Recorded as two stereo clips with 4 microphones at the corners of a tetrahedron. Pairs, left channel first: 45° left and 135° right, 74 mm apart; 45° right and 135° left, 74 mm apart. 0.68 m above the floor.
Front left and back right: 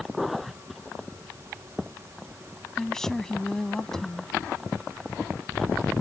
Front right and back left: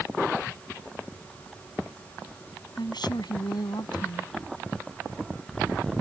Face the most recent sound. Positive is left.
turn(degrees=-40)